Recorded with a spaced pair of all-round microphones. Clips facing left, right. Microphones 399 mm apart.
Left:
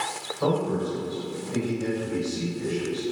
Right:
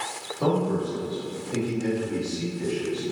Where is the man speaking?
80° right, 1.4 m.